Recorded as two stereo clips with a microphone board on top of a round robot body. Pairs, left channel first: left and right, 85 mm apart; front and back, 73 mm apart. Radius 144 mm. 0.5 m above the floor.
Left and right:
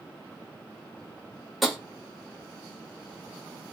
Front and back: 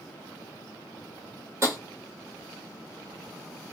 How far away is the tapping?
About 1.4 m.